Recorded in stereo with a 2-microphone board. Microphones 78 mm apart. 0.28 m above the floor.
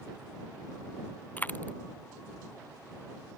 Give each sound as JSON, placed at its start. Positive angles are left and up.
{"t": 1.4, "sound": "a dropped coin", "side_deg": 20}